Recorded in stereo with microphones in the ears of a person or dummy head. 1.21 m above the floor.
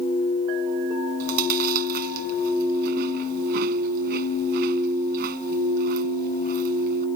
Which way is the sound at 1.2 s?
45° right (ahead or behind).